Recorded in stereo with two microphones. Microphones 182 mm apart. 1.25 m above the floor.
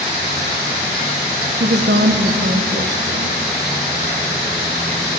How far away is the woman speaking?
About 0.7 m.